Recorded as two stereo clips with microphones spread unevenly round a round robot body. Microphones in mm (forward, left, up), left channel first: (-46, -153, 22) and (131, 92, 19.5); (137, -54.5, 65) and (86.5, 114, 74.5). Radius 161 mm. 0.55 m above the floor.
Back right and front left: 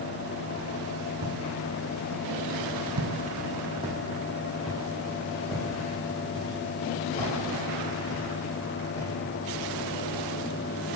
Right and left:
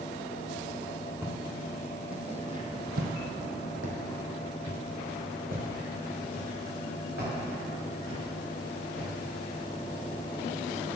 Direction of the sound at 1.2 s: 30° left.